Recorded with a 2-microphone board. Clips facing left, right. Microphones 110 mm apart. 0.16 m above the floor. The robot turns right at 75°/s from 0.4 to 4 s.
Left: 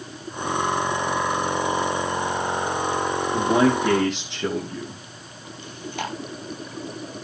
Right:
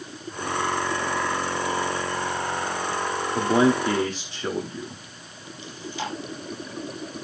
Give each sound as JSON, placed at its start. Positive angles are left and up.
{"t": 3.3, "sound": "a man speaking", "azimuth_deg": 50, "distance_m": 8.0}
{"t": 5.6, "sound": "chewing", "side_deg": 55, "distance_m": 3.5}